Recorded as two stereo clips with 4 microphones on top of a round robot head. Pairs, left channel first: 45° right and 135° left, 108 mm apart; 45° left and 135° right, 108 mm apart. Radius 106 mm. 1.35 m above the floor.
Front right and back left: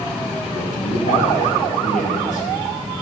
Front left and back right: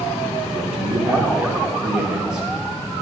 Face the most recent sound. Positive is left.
turn(degrees=-50)